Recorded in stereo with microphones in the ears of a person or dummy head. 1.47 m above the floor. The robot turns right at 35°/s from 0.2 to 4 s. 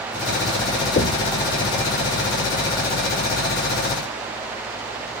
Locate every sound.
1.0 s knocking: 40° left (ahead or behind), 0.6 m; by 1.3 s 35° left (ahead or behind), 0.6 m